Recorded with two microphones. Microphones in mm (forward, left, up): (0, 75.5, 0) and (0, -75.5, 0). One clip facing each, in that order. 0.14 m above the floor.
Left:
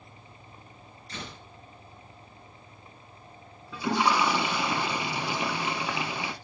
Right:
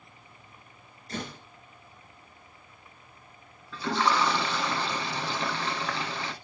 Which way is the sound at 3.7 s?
10° left (ahead or behind).